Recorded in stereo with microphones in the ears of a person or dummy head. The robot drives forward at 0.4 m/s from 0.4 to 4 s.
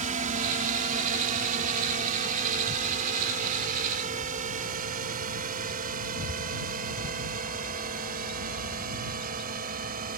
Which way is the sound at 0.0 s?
35° right (ahead or behind).